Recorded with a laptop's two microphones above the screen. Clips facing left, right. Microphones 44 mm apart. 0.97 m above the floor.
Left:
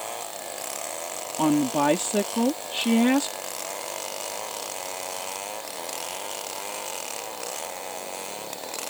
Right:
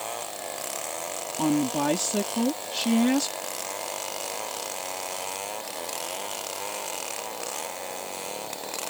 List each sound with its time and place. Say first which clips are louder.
1.4 s a woman speaking: left 3 dB; 25° left (ahead or behind)